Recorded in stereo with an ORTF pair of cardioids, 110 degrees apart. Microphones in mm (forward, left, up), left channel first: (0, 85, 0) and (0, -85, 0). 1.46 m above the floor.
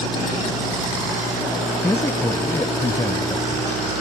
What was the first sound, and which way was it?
A man speaking, 15° left.